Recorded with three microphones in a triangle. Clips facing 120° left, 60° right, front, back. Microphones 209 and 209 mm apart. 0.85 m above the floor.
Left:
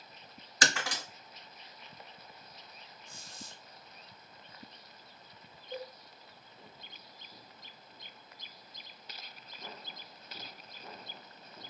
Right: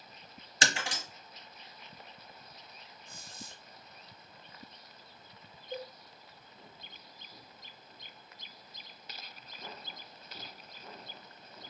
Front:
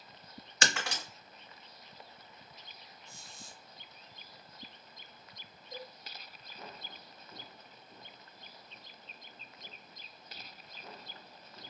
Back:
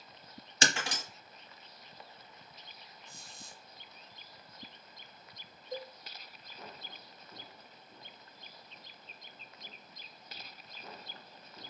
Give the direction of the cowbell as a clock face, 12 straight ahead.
4 o'clock.